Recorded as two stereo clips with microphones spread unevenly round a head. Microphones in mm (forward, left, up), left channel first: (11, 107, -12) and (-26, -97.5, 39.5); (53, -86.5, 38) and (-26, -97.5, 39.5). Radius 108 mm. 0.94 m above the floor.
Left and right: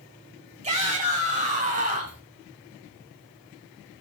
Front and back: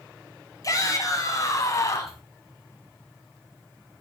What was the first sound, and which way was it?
A shout, 40° right.